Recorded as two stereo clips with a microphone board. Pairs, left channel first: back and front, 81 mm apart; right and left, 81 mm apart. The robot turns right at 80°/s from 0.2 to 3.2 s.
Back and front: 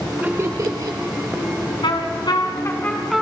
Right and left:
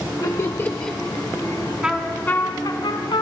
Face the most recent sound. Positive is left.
turn(degrees=-85)